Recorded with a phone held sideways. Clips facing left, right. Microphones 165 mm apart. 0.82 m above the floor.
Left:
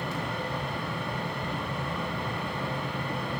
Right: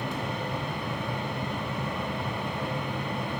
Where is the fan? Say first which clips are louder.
Right 1 dB; 15° right (ahead or behind), 1.1 m.